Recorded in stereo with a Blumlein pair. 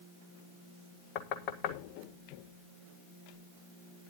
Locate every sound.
1.1 s knocking: 40° left, 1.5 m